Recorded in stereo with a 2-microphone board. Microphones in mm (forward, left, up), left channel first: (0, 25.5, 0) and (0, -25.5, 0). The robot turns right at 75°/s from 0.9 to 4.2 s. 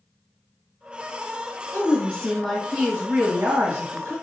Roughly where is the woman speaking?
Behind left.